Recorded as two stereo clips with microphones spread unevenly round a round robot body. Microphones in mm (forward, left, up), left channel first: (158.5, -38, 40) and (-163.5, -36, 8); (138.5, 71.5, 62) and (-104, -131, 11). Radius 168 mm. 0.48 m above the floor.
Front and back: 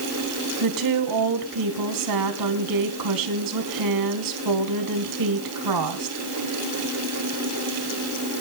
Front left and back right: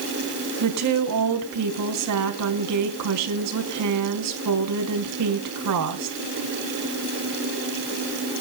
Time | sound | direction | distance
0.6 | a woman speaking | 175° right | 3.5 m